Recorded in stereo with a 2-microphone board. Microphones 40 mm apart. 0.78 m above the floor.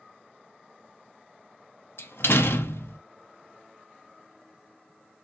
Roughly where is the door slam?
Left.